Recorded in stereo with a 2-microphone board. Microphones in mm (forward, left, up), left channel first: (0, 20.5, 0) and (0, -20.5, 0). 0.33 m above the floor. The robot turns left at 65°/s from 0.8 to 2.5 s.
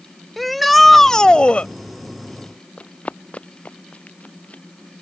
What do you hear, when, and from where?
0.4 s a shout: straight behind; by 1.7 s 120° left
2.8 s running footsteps: 35° left (ahead or behind); by 4.6 s 40° left (ahead or behind)